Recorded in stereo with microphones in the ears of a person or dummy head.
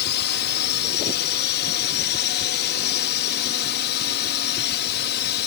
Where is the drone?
55° left (ahead or behind).